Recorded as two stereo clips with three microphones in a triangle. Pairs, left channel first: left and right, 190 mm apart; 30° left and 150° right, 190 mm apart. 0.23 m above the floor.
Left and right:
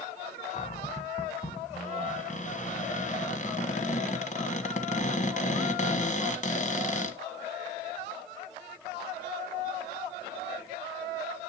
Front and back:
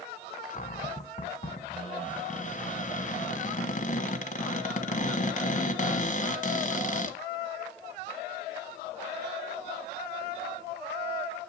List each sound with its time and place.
0.5 s a cupboard door: 60° left, 1.4 m